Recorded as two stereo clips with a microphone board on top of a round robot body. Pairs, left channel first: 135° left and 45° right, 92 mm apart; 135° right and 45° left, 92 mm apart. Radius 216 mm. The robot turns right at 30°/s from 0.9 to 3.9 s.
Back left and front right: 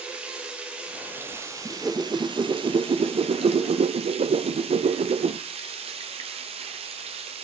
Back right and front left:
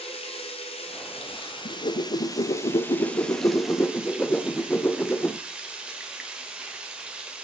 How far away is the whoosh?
About 0.6 m.